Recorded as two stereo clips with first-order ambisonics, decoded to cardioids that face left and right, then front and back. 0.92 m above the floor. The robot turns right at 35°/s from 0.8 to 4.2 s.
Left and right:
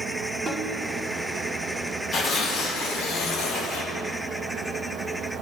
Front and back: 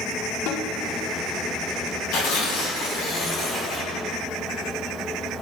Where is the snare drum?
10° right, 1.7 m.